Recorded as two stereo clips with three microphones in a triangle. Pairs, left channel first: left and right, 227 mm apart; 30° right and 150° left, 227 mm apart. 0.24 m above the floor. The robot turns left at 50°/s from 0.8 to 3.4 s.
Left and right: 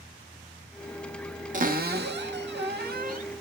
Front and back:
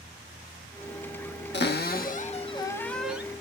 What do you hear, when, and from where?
1.5 s a cupboard door: 45° right, 0.6 m; by 3.2 s 130° right, 0.6 m